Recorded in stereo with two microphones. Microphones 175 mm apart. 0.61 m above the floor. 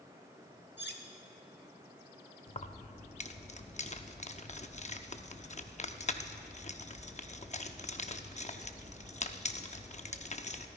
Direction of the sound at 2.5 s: 40° left (ahead or behind).